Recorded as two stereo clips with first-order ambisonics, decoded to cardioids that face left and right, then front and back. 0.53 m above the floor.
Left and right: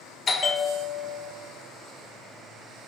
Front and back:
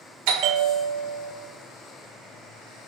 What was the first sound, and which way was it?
A bell, 160° left.